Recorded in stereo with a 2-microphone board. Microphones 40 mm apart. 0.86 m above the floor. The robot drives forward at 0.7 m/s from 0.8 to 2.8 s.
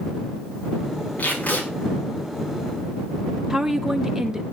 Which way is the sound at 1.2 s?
40° left (ahead or behind).